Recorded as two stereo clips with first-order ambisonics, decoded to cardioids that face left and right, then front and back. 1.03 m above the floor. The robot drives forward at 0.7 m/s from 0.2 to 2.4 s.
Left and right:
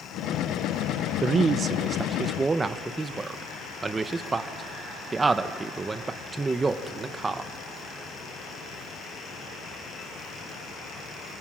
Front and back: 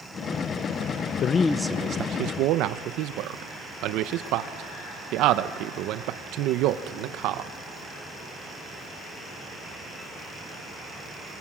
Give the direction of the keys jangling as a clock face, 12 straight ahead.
No keys jangling in this recording.